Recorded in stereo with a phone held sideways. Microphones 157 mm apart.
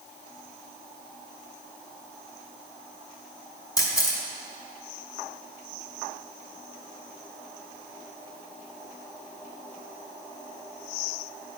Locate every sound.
3.8 s a camera shutter: 20° left (ahead or behind), 1.9 m